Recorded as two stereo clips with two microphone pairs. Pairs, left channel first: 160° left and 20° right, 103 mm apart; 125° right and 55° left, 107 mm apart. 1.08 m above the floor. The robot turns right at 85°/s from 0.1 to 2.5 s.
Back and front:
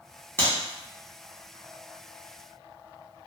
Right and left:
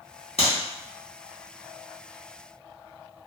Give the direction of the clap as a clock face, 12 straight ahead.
4 o'clock.